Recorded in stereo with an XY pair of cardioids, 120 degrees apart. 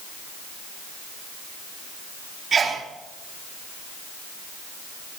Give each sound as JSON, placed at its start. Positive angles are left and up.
{"t": 2.5, "sound": "a sneeze", "azimuth_deg": -35, "distance_m": 2.5}